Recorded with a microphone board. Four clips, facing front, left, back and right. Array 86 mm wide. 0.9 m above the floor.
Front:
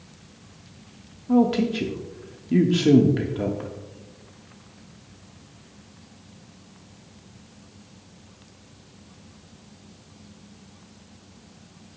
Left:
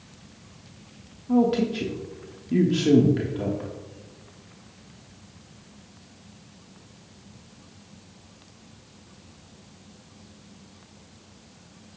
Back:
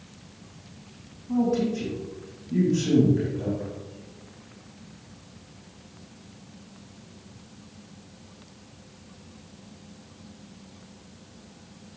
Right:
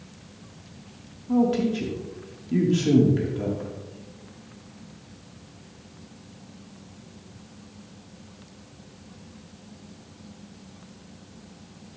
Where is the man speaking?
10° left, 1.2 m.